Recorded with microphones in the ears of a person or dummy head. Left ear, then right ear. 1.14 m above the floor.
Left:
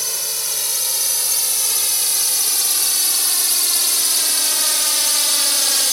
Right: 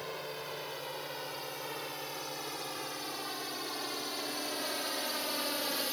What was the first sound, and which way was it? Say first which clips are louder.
A drone: left 15 dB; 75° left (ahead or behind).